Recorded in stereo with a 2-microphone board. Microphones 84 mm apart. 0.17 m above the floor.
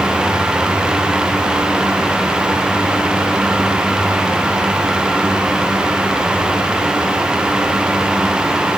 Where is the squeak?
I don't hear a squeak.